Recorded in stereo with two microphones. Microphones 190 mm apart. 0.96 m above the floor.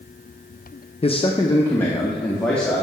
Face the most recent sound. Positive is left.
turn(degrees=5)  # may be behind; listen again after turning